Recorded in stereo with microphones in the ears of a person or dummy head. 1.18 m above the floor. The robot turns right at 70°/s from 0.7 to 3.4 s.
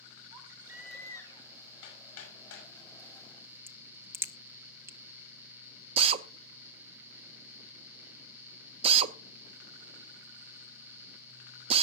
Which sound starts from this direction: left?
Hammering, at 1.8 s.